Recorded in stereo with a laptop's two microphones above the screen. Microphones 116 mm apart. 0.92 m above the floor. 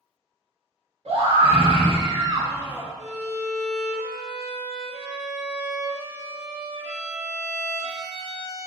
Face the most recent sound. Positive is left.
turn(degrees=-80)